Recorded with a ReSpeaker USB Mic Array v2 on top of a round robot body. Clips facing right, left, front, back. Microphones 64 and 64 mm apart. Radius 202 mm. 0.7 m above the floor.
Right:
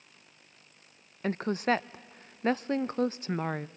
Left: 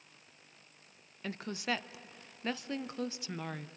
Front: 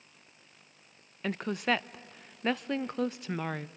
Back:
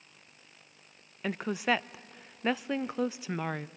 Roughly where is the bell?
I don't hear a bell.